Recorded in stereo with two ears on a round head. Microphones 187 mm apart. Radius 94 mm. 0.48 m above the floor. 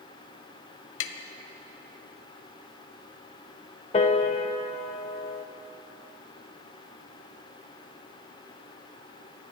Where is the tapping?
65° left (ahead or behind), 0.8 m.